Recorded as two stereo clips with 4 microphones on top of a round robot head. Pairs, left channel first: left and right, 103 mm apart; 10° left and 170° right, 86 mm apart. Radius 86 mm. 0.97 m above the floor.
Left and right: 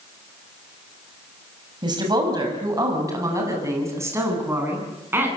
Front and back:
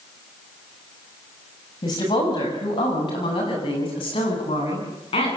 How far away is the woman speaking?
About 6 m.